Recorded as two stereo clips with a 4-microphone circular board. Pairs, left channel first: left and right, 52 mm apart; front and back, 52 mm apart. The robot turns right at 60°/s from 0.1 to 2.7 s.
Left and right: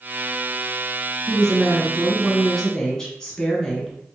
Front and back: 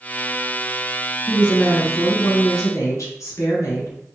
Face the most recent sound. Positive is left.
turn(degrees=15)